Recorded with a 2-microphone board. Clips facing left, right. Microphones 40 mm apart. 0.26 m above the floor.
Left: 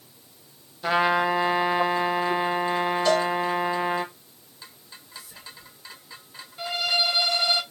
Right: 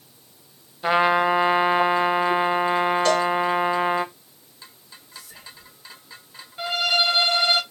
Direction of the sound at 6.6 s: 40° right (ahead or behind).